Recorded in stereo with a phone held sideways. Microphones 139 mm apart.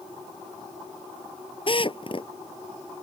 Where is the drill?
40° left (ahead or behind).